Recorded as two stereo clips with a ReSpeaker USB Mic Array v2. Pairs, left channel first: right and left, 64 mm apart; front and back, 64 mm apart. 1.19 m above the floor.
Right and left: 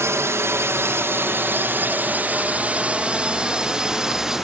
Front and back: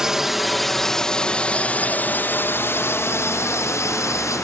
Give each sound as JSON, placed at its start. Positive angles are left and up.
{"t": 0.0, "sound": "a drone", "azimuth_deg": 100}